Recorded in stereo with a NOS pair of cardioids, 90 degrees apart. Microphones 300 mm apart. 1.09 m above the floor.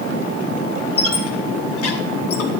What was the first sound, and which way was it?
A squeak, 50° left.